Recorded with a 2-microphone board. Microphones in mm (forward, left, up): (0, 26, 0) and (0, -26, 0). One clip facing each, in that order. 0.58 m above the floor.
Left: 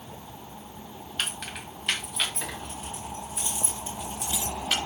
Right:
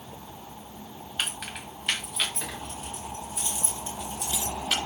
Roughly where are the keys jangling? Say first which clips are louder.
Even; centre.